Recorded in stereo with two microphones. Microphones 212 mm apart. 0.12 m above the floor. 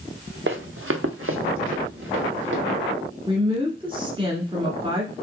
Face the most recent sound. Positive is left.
turn(degrees=-25)  # may be behind; listen again after turning